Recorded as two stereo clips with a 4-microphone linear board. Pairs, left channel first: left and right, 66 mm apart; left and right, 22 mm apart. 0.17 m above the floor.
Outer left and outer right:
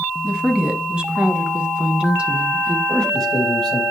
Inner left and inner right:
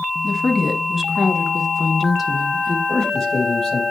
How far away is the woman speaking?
About 1.1 m.